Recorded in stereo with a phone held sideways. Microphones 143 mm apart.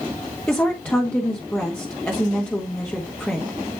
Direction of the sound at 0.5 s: 10° left (ahead or behind).